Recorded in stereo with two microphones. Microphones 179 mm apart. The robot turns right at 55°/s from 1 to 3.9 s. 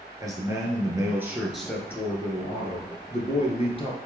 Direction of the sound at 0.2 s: 30° right.